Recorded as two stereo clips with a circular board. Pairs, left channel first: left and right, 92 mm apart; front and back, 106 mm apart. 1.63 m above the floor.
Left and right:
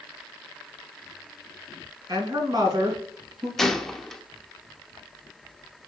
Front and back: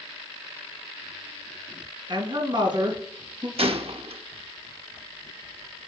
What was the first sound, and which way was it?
A woman speaking, 135° right.